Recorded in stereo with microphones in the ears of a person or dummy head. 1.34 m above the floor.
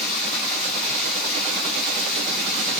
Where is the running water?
40° left (ahead or behind), 2 m.